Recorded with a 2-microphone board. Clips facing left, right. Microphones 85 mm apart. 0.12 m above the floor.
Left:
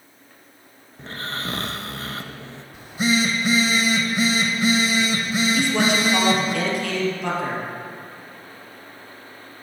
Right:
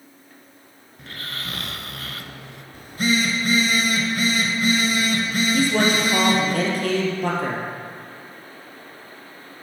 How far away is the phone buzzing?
About 1.5 m.